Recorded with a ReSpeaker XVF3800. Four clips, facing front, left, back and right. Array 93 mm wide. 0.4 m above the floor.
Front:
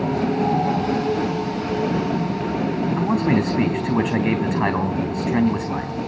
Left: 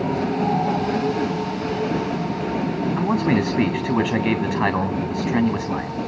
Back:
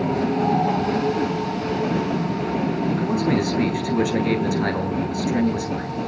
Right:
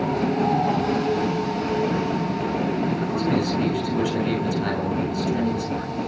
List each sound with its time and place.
3.0 s a man speaking: 50° left, 3.5 m